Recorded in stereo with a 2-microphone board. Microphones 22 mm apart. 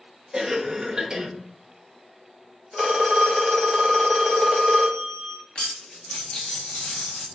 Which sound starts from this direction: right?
A cough, at 0.3 s.